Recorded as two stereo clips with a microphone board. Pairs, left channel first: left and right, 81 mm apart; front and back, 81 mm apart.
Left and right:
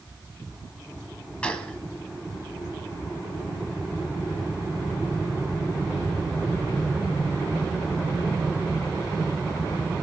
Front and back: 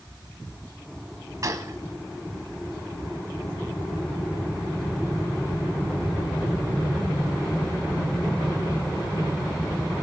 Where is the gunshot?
160° left, 1.2 m.